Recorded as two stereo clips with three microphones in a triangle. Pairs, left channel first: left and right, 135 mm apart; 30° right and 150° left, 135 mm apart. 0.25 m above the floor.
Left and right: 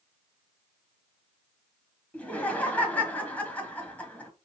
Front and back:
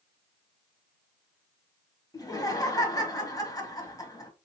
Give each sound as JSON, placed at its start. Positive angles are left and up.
{"t": 2.1, "sound": "laughter", "azimuth_deg": 15, "distance_m": 1.2}